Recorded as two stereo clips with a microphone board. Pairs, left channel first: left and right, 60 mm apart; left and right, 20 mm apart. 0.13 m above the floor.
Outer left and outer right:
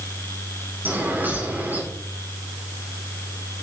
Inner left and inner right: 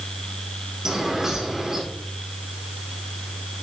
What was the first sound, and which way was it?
A bird, 30° right (ahead or behind).